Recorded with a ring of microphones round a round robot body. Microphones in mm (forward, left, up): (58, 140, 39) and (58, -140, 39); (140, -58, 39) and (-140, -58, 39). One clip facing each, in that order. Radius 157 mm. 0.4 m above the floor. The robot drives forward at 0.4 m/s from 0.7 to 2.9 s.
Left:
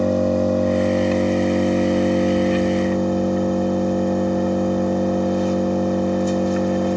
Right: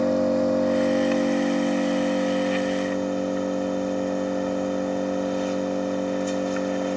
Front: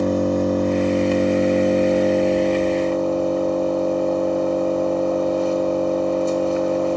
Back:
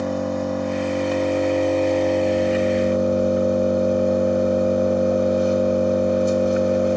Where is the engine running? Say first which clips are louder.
Left 3 dB, front 5 dB; 45° left, 1.2 m; by 7.0 s 110° left, 1.0 m.